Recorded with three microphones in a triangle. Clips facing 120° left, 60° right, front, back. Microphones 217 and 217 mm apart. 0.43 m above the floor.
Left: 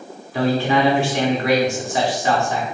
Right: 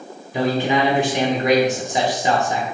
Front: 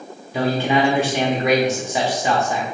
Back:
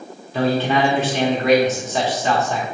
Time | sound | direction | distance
0.3 | a man speaking | 50° right | 0.8 m